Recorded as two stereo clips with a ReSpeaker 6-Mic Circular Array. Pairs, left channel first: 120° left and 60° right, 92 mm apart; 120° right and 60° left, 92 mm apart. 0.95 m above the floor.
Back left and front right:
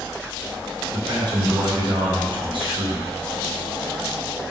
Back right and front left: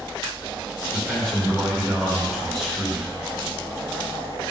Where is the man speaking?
35° right, 3 m.